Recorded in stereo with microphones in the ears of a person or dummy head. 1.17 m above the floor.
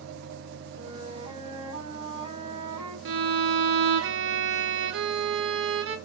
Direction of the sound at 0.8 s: 30° right (ahead or behind).